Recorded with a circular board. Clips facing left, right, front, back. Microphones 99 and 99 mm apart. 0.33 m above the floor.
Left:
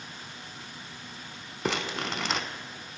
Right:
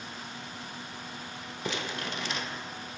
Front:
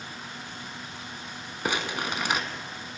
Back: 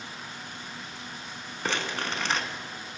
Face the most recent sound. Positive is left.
turn(degrees=80)